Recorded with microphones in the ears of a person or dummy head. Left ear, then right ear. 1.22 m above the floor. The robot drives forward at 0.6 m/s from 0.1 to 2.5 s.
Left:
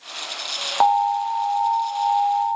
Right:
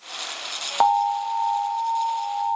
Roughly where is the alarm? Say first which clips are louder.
Left 1 dB; centre.